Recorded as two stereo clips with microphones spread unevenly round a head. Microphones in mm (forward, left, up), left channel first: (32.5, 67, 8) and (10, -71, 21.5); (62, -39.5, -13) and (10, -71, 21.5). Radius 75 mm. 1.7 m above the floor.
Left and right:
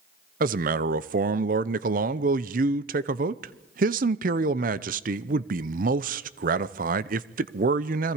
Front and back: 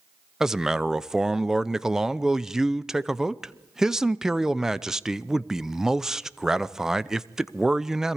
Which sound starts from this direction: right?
A man speaking, at 0.4 s.